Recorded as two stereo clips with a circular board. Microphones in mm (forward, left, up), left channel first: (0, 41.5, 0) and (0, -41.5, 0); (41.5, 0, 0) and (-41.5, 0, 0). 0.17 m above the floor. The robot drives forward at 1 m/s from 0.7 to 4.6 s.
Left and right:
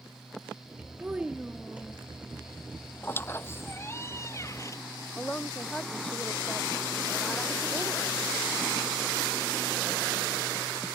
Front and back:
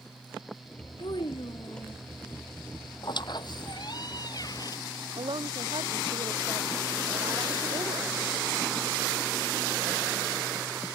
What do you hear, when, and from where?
1.0 s a child speaking: 15° right
3.0 s a squeak: 25° left; by 4.8 s 40° left
5.2 s a woman speaking: 165° left